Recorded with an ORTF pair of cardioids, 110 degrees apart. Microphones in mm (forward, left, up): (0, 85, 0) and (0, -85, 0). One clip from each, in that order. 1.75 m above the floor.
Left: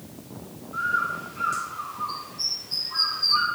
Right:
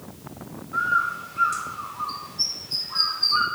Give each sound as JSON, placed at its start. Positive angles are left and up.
{"t": 0.7, "sound": "a bird", "azimuth_deg": -20, "distance_m": 2.5}